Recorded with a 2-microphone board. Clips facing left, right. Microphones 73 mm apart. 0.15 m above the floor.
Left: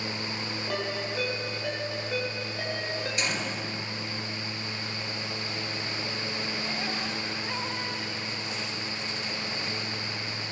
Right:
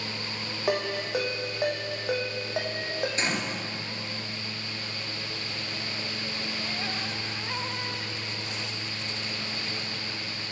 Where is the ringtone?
75° right (ahead or behind), 6 m.